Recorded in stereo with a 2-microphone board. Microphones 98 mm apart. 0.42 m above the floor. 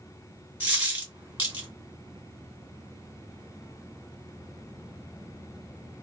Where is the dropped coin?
15° right (ahead or behind), 1.6 m.